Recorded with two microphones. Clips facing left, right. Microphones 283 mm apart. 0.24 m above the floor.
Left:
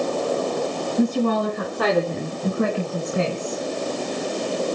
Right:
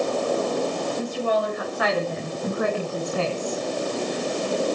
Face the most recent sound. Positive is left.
turn(degrees=5)  # may be behind; listen again after turning